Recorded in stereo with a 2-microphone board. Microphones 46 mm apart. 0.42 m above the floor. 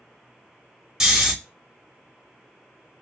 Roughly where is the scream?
No scream in this recording.